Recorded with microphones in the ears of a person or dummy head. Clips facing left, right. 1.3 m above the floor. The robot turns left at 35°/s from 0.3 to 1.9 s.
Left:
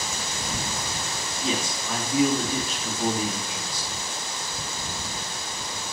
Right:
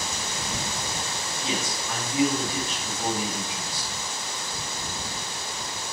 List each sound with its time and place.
1.4 s a man speaking: 85° left, 2.5 m; by 3.9 s 80° left, 2.5 m